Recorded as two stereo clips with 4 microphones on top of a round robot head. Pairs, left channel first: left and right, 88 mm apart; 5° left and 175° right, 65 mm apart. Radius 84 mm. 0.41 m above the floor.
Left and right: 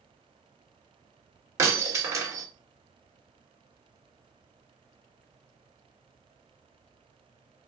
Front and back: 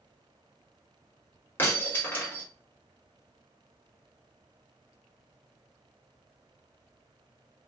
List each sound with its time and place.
1.6 s breaking glass: 45° right, 0.9 m